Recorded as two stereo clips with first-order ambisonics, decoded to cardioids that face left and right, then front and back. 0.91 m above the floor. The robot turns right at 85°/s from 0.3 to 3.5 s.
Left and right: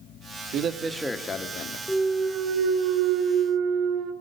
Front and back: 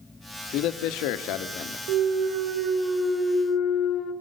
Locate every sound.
0.5 s a man speaking: 45° right, 1.1 m; by 1.8 s 60° left, 1.1 m
1.9 s a clunk: 175° left, 2 m; by 4.1 s 45° right, 2 m